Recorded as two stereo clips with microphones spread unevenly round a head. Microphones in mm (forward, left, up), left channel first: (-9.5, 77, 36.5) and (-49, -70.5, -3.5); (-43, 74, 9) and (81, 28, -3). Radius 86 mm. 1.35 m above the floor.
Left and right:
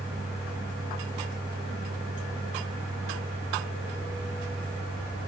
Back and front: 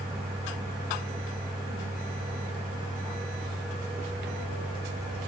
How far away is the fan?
About 7.5 m.